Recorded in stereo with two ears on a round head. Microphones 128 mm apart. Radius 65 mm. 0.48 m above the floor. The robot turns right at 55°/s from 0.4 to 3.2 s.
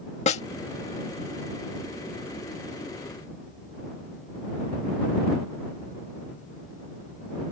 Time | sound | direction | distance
0.3 | a snare drum | 45° left (ahead or behind) | ?